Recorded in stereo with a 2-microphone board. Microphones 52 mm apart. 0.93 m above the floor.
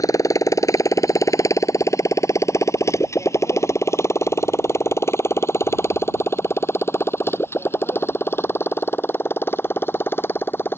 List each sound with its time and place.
0.0 s a motorcycle: 75° left (ahead or behind); by 10.8 s 40° left (ahead or behind)